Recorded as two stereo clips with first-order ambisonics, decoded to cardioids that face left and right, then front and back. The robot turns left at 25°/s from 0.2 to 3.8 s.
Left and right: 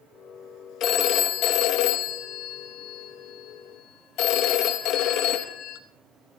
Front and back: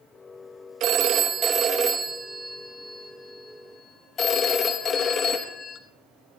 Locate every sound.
0.8 s a phone ringing: 135° left, 1.1 m; by 5.8 s 60° left, 1.1 m